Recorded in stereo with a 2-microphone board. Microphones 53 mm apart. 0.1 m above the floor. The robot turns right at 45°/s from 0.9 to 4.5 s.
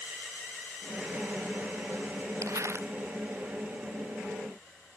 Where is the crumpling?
70° right (ahead or behind); by 2.9 s 50° right (ahead or behind).